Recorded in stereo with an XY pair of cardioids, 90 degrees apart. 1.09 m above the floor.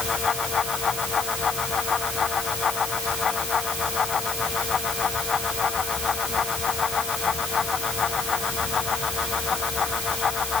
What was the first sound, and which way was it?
A fan, 45° left.